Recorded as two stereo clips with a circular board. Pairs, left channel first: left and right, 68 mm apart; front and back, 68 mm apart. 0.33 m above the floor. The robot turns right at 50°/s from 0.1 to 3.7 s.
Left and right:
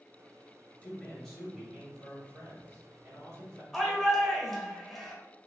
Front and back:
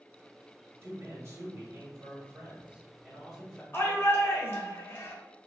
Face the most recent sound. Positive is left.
turn(degrees=5)